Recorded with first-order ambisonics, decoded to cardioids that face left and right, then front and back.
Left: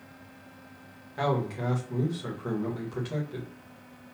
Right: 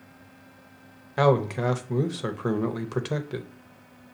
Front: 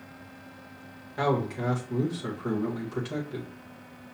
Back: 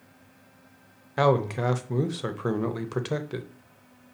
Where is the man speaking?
130° right, 0.6 m.